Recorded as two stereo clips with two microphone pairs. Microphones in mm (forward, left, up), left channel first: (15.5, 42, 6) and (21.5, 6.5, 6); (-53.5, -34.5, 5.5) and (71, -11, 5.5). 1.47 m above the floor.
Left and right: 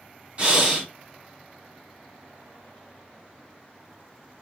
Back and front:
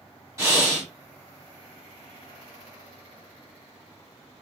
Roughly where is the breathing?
Ahead right.